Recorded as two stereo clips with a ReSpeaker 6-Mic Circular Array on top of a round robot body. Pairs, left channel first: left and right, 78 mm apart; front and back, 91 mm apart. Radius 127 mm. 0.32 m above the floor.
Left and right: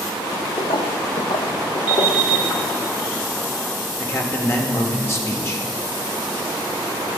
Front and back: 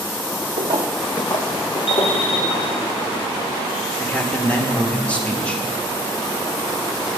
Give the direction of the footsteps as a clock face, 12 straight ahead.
7 o'clock.